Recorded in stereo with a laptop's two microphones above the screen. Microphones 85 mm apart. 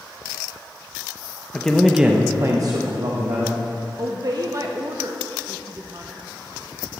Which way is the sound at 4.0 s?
45° right (ahead or behind).